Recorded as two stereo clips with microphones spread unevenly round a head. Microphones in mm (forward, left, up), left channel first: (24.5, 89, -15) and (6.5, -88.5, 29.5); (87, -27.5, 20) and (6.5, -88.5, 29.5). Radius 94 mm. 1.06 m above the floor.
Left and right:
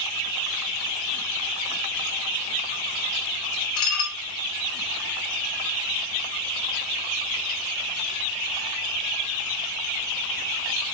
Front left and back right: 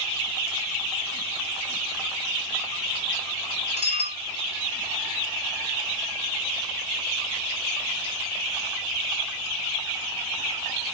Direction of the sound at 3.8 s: 80° left.